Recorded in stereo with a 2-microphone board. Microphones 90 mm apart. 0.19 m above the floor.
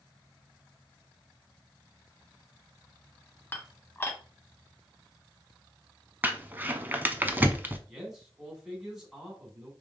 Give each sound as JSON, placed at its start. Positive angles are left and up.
{"t": 3.5, "sound": "dishes clattering", "side_deg": 25, "distance_m": 0.7}
{"t": 6.2, "sound": "crumpling", "side_deg": -20, "distance_m": 0.6}
{"t": 7.9, "sound": "a man speaking", "side_deg": -5, "distance_m": 2.0}